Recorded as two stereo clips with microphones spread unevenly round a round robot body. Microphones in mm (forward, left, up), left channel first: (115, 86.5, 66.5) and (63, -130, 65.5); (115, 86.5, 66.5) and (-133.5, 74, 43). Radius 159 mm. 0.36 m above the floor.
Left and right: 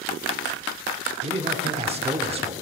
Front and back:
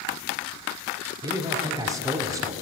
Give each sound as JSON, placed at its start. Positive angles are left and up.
{"t": 1.2, "sound": "a man speaking", "azimuth_deg": -125, "distance_m": 1.0}